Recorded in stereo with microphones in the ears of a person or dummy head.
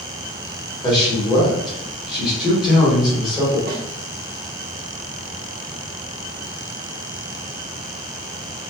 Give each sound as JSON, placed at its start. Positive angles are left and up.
{"t": 0.8, "sound": "a man speaking", "side_deg": 25, "distance_m": 1.7}
{"t": 3.7, "sound": "a snare drum", "side_deg": -45, "distance_m": 0.8}